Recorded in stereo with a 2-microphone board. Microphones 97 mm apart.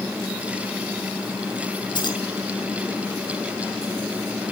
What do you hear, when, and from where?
1.9 s keys jangling: 55° left (ahead or behind), 7 m